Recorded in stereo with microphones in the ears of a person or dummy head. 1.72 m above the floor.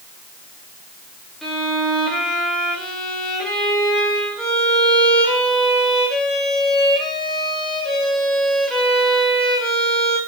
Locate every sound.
1.4 s a violin: centre (ahead or behind), 2.5 m